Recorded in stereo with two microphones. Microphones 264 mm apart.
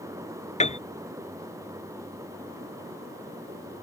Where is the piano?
25° left (ahead or behind).